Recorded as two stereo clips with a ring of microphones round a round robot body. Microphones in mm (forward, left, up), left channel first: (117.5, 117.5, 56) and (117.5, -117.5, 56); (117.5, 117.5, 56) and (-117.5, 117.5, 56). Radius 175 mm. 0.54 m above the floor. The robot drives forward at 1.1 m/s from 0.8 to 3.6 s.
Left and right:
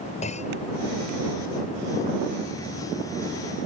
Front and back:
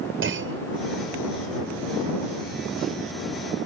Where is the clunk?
155° left.